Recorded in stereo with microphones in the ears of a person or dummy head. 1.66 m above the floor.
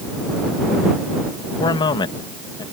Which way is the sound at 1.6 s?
20° left (ahead or behind).